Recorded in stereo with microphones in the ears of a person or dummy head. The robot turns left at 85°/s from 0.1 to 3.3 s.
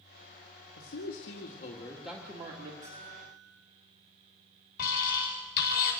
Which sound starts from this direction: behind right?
A bell, at 2.8 s.